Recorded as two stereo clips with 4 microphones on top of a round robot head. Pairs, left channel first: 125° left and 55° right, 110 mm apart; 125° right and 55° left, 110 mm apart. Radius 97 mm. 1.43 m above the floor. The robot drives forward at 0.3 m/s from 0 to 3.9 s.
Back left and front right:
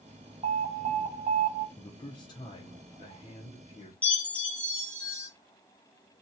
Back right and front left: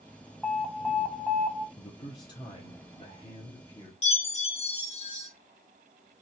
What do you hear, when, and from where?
0.4 s an alarm: 35° right, 1.0 m; by 1.7 s 50° right, 0.7 m
1.8 s a man speaking: 175° right, 0.6 m; by 3.9 s straight behind, 1.2 m
4.0 s a chime: 155° right, 1.6 m